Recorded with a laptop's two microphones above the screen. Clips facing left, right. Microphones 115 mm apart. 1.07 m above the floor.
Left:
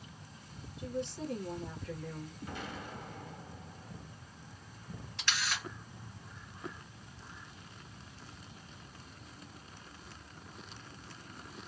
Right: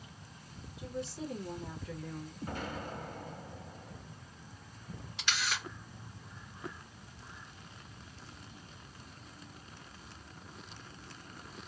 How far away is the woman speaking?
About 1.1 m.